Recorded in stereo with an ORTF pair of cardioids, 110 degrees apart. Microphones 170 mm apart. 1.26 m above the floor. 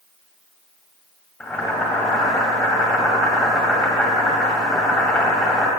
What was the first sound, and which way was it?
Boiling, 5° left.